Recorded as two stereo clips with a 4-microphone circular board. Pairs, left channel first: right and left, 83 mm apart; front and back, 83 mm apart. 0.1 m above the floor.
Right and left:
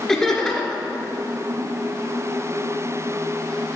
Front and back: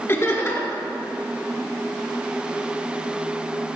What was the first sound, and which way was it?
Laughter, 15° right.